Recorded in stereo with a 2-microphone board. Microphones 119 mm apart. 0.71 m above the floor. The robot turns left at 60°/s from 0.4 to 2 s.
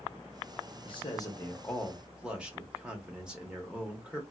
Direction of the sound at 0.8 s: 60° left.